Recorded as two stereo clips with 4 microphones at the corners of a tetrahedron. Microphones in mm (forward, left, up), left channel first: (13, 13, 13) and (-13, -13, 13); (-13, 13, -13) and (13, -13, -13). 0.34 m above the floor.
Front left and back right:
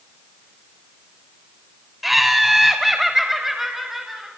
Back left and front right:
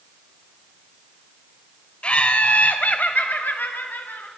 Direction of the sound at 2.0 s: 135° left.